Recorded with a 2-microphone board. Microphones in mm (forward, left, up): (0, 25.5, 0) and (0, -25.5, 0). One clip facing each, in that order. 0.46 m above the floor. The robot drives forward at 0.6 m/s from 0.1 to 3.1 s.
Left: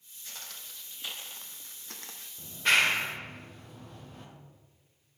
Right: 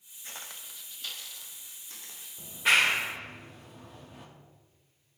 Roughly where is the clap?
Centre.